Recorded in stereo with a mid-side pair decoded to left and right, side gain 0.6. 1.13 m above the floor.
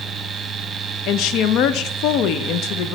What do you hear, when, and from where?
0.0 s a fan: 35° right, 0.9 m
1.1 s a woman speaking: 65° left, 0.7 m